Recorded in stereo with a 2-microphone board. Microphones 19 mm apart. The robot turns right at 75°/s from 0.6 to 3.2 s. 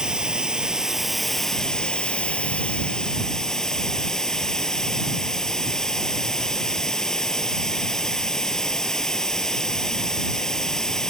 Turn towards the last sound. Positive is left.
turn(degrees=150)